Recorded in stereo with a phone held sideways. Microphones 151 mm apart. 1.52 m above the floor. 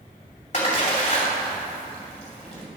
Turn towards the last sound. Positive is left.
turn(degrees=50)  # may be behind; listen again after turning